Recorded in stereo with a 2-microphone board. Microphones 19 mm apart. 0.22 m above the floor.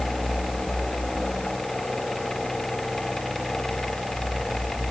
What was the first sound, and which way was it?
Only background noise.